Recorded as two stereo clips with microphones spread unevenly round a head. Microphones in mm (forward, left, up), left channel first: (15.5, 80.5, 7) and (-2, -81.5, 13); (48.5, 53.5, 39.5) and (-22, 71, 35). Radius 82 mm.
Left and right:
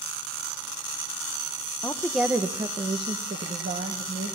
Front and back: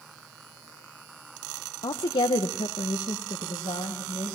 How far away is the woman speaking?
About 0.8 m.